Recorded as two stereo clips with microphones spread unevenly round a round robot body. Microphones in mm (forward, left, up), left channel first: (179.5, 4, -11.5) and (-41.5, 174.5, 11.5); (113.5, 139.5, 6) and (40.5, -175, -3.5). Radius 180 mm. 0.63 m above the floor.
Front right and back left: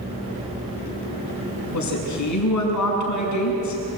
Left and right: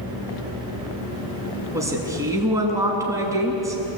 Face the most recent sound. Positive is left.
turn(degrees=-20)